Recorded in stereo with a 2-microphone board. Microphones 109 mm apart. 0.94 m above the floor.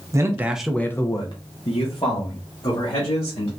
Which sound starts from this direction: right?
A man speaking, at 0.1 s.